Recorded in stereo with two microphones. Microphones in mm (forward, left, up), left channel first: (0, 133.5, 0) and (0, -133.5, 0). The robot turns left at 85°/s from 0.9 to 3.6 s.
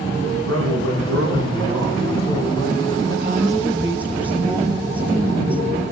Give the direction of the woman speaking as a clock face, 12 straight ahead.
4 o'clock.